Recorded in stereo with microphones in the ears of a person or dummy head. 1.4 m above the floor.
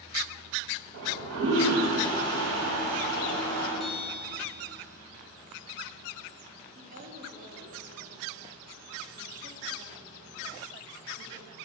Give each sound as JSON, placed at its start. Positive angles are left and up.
{"t": 0.9, "sound": "a toilet flushing", "side_deg": -80, "distance_m": 6.0}
{"t": 3.8, "sound": "a bell", "side_deg": 0, "distance_m": 2.5}
{"t": 6.8, "sound": "a woman speaking", "side_deg": -40, "distance_m": 2.5}